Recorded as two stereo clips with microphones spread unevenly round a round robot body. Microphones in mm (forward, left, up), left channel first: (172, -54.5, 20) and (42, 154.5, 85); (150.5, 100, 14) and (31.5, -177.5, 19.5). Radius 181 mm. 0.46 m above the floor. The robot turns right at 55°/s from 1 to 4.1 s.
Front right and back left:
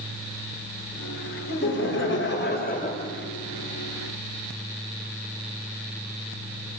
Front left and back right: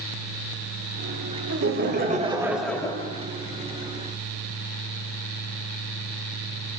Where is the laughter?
85° right, 2.5 m; by 3.1 s 5° left, 2.5 m.